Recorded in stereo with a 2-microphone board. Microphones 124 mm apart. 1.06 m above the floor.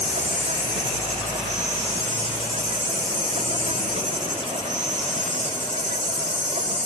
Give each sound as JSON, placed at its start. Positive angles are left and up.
{"t": 0.0, "sound": "an insect", "side_deg": -70}